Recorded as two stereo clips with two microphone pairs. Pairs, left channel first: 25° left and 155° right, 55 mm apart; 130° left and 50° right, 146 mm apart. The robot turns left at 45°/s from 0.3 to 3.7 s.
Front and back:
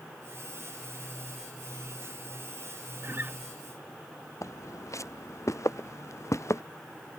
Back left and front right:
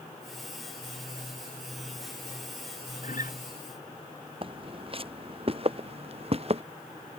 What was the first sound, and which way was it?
A guitar, 165° left.